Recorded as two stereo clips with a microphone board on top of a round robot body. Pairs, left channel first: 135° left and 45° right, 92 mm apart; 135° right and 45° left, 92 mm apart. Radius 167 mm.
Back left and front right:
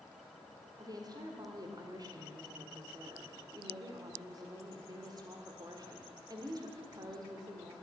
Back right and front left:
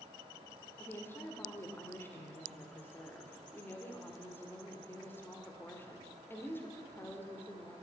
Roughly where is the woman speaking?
Right.